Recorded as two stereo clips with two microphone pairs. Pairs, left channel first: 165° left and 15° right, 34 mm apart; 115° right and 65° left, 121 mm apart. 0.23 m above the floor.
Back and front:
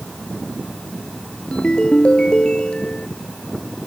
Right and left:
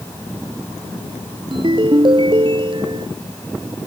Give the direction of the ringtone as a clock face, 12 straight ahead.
8 o'clock.